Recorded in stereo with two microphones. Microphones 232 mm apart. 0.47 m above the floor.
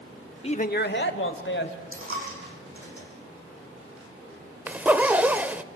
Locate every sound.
0.4 s a man speaking: 25° left (ahead or behind), 0.7 m; by 1.8 s 55° left (ahead or behind), 2.5 m
1.9 s a dropped coin: 65° right (ahead or behind), 6 m
4.7 s a zipper: 5° right (ahead or behind), 0.7 m